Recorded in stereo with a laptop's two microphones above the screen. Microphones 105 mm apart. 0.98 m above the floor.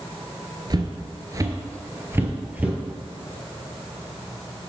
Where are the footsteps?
45° right (ahead or behind), 1.2 m; by 2.8 s 15° right (ahead or behind), 1.5 m.